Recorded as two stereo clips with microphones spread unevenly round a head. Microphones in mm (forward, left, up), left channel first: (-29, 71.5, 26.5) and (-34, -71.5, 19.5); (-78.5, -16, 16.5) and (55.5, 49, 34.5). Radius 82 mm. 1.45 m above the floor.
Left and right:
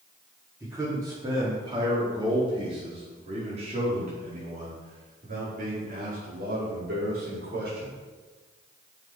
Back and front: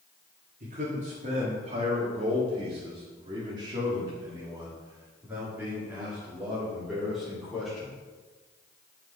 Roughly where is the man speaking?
Ahead.